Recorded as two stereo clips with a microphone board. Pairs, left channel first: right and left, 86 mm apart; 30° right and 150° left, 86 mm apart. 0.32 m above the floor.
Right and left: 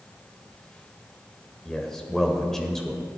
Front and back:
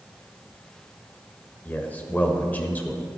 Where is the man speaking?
10° right, 1.4 m.